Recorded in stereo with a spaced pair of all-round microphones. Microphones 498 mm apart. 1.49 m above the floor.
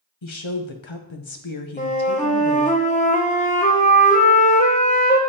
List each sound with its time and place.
0.2 s a woman speaking: 65° left (ahead or behind), 0.9 m
1.8 s a flute: 15° left (ahead or behind), 0.9 m